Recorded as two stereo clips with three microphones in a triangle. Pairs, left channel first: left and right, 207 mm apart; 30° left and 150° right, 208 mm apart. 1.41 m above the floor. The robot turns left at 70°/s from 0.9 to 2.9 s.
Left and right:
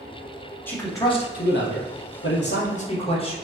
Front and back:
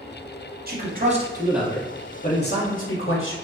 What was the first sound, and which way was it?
A man speaking, 170° left.